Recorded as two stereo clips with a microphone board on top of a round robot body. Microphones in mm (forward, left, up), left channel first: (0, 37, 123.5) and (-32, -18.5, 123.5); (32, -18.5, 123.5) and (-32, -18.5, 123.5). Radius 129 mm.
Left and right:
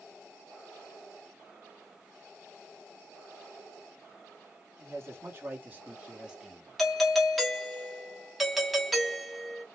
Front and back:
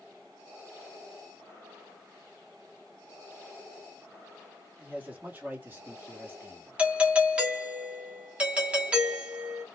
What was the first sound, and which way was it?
A man speaking, 125° right.